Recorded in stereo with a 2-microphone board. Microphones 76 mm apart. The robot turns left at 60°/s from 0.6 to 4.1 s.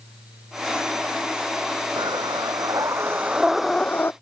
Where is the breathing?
80° right; by 4.1 s 150° left.